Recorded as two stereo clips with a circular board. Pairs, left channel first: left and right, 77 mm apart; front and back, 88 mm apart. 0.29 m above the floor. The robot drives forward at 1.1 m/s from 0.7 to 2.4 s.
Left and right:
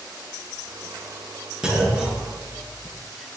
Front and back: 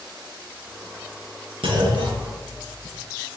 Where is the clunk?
170° right, 3.5 m; by 3.0 s 175° right, 4.5 m.